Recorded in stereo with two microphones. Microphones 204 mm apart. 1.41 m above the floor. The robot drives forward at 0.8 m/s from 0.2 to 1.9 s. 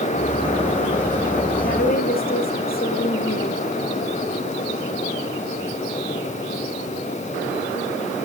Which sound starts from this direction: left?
A woman speaking, at 1.6 s.